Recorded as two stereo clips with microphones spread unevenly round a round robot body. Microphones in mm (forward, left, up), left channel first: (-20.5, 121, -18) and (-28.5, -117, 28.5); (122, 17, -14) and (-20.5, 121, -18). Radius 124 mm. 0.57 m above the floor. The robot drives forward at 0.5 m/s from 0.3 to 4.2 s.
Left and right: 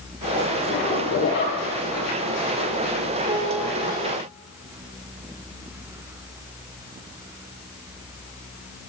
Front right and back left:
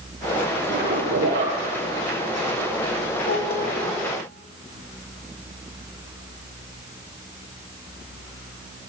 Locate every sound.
0.7 s a zipper: 130° left, 7 m; by 1.6 s 135° left, 7 m
3.2 s a piano: 40° right, 9.5 m